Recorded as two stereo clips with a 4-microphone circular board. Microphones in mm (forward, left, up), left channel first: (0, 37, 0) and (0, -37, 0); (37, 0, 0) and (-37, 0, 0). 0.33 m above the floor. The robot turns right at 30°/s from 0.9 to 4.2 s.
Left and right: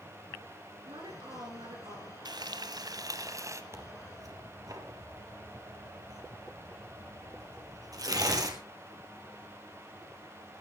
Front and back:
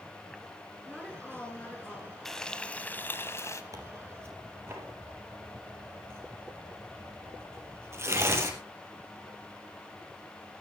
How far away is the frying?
About 1.5 m.